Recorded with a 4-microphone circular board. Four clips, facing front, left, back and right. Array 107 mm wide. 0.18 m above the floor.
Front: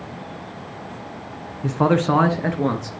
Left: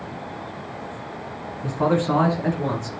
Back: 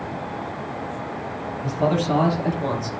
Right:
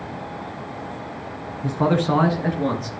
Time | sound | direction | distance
1.6 | a man speaking | straight ahead | 2 m